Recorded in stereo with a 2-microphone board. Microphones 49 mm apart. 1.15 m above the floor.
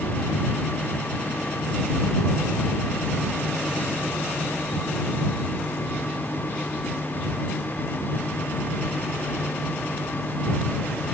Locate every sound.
Only background noise.